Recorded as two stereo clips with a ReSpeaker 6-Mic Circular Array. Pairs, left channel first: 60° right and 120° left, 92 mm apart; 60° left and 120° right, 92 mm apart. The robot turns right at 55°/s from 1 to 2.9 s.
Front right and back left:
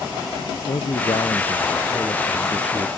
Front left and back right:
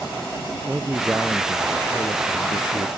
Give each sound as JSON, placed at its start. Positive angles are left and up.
{"t": 0.7, "sound": "a man speaking", "azimuth_deg": -50}